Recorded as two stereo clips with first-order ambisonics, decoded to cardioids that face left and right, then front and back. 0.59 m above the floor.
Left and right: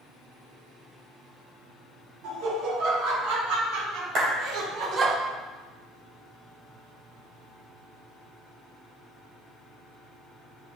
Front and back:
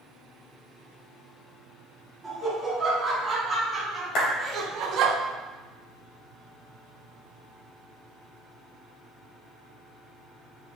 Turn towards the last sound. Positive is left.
turn(degrees=-40)